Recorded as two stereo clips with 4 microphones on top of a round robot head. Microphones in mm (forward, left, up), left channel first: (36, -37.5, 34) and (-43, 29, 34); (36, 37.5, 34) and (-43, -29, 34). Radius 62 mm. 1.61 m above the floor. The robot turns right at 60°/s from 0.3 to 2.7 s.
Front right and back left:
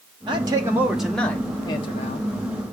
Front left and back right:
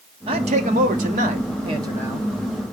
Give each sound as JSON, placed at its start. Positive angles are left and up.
{"t": 0.3, "sound": "a man speaking", "azimuth_deg": -175, "distance_m": 1.1}